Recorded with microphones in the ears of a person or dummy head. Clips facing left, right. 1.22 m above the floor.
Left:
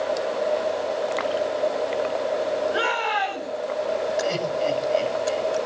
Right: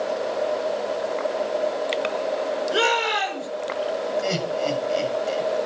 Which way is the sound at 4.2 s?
15° right (ahead or behind).